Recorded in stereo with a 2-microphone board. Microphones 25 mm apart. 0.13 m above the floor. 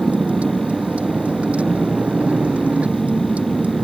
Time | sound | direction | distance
0.0 | a vehicle | 75° right (ahead or behind) | ?